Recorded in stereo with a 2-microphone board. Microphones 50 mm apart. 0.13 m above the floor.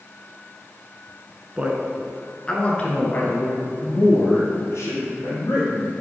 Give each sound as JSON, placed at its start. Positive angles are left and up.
{"t": 1.6, "sound": "a man speaking", "side_deg": -20, "distance_m": 1.2}